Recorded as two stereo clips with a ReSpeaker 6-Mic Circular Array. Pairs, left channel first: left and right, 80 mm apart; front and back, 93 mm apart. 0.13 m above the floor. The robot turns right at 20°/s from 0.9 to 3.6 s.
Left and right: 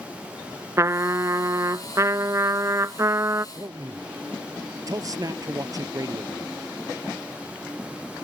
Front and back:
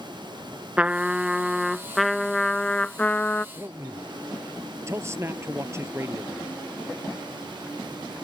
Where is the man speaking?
125° right.